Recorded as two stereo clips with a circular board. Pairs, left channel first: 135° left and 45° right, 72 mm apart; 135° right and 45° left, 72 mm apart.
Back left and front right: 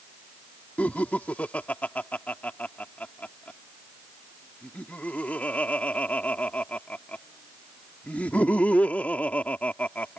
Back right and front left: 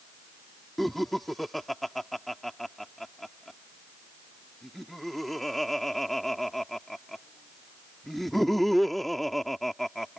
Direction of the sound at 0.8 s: 140° left.